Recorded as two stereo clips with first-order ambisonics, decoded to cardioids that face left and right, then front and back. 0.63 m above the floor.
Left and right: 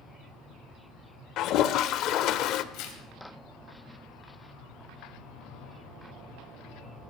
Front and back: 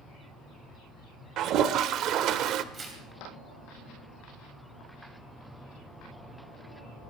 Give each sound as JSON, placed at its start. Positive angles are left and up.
{"t": 1.4, "sound": "a toilet flushing", "azimuth_deg": 135, "distance_m": 0.6}
{"t": 2.7, "sound": "tearing paper", "azimuth_deg": 115, "distance_m": 2.5}